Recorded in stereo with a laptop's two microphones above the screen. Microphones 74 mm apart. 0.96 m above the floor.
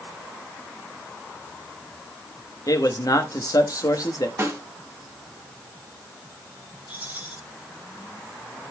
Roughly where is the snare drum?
Right.